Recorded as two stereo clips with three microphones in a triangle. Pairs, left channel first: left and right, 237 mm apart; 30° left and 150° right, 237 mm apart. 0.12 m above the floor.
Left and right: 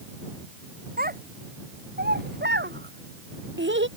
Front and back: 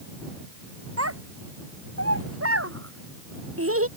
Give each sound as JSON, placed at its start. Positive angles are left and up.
{"t": 1.0, "sound": "a child speaking", "azimuth_deg": -140}